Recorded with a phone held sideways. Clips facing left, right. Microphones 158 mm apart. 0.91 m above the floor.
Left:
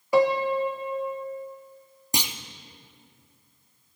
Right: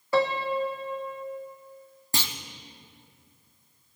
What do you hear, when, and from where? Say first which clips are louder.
0.1 s a piano: left 4 dB; 15° left (ahead or behind), 0.6 m
2.1 s a clunk: left 2 dB; 15° left (ahead or behind), 0.6 m